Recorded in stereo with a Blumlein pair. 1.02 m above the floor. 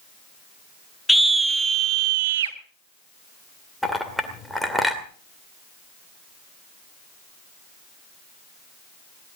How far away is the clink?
About 2 m.